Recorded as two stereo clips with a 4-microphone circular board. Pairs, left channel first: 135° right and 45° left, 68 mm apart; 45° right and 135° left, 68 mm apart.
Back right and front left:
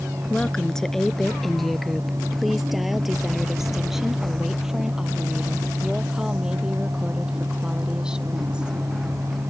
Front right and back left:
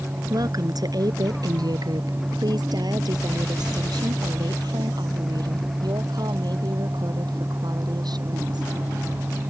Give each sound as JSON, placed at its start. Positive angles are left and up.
{"t": 0.3, "sound": "a woman speaking", "azimuth_deg": 150}